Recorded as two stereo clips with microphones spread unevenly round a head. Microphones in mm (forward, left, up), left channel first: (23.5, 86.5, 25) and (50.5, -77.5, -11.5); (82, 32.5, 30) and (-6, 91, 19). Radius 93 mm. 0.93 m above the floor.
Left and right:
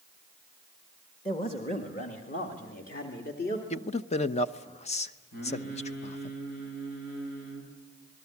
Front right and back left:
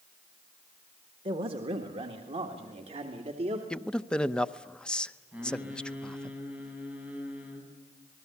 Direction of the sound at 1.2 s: 165° left.